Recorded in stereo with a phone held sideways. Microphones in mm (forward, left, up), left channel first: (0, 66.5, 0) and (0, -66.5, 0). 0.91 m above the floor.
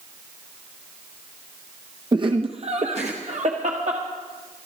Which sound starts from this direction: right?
Laughter, at 2.1 s.